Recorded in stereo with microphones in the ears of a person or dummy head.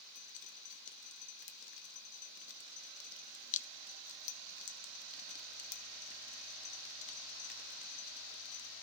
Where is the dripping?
40° left (ahead or behind), 1.1 m.